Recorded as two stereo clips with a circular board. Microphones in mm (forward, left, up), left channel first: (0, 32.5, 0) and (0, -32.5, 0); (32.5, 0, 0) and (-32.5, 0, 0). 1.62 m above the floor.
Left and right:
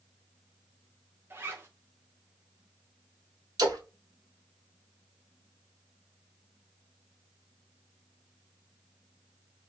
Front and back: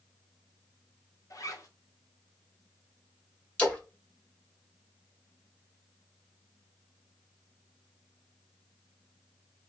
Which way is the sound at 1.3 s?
35° right.